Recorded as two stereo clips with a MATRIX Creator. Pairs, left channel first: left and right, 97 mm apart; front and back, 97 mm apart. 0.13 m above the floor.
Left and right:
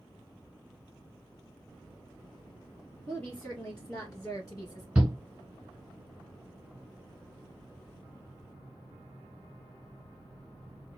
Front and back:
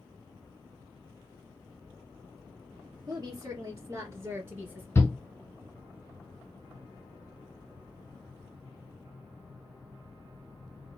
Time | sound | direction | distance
3.1 | a woman speaking | 170° left | 2 m
5.0 | a shout | 25° right | 1.1 m